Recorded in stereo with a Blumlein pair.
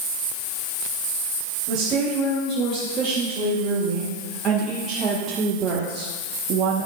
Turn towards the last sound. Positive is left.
turn(degrees=-40)